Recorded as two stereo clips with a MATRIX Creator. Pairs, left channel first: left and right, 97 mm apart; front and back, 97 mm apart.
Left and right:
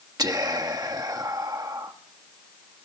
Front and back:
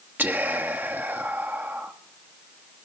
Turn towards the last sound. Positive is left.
turn(degrees=-115)